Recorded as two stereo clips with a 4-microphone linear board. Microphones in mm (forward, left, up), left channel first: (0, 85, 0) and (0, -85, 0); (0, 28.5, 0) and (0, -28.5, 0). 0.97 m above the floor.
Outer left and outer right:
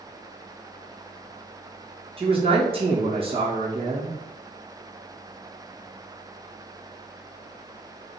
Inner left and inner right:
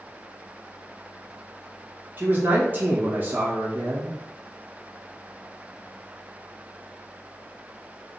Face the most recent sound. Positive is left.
turn(degrees=-35)  # may be behind; listen again after turning